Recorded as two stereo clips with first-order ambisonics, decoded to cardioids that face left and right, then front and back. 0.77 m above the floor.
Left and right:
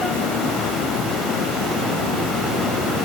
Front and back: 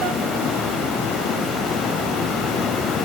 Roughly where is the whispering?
No whispering in this recording.